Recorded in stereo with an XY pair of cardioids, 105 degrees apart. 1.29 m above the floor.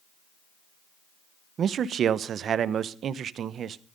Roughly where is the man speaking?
Ahead right.